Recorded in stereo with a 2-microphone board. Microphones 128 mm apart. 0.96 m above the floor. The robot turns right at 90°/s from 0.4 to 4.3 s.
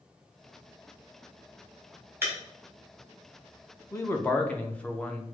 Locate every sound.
2.2 s breaking glass: 20° right (ahead or behind), 1.8 m; by 2.4 s 5° right (ahead or behind), 1.8 m
3.9 s a man speaking: 25° left (ahead or behind), 0.6 m; by 5.2 s 10° left (ahead or behind), 0.6 m